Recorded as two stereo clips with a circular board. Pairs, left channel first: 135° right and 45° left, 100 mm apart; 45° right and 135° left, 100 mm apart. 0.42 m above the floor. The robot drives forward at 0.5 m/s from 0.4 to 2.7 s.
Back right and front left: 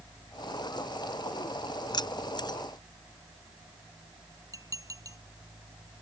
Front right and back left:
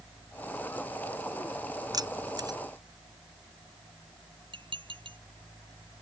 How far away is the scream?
No scream in this recording.